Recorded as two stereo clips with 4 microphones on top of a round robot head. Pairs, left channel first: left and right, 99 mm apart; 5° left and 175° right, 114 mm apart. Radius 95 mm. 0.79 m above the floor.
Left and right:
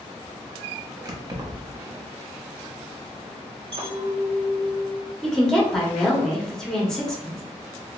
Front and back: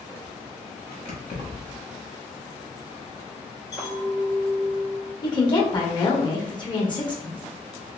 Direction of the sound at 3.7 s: 60° right.